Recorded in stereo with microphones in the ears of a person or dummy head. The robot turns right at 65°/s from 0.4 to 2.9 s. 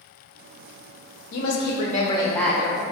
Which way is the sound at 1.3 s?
100° left.